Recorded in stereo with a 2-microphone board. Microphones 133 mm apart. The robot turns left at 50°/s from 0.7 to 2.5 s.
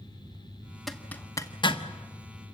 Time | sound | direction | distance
0.9 | a zipper | centre (ahead or behind) | 1.1 m